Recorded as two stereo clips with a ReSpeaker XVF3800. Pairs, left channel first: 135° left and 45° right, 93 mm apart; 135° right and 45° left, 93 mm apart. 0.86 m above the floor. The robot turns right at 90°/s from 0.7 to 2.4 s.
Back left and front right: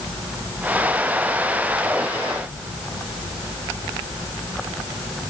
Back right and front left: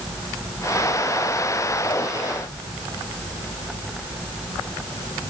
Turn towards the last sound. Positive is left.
No sound to turn to.